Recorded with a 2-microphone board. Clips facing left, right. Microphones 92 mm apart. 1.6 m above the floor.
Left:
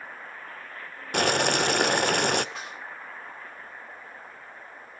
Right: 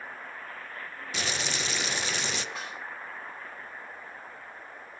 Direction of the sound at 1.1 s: 60° left (ahead or behind).